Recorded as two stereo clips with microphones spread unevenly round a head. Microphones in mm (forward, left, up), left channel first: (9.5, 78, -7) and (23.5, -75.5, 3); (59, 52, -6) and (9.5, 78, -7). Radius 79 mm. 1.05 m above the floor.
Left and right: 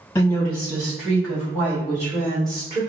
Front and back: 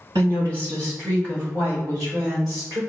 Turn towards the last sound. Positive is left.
turn(degrees=-150)